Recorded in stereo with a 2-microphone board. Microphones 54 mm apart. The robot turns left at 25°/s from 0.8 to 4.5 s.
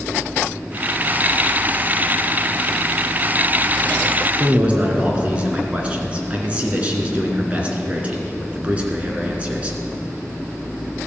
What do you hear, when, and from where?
4.4 s a man speaking: 25° right (ahead or behind), 2.5 m